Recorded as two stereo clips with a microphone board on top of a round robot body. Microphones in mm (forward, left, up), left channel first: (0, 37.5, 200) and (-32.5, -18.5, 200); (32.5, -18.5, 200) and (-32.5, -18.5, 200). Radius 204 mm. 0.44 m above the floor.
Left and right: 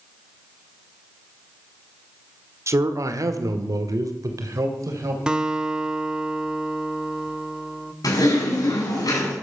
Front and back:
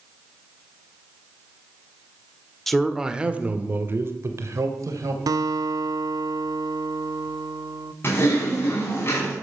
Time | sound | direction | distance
2.7 | a man speaking | 85° right | 1.9 m
5.3 | a guitar | 160° left | 0.7 m
8.0 | typing on a keyboard | 50° left | 6.5 m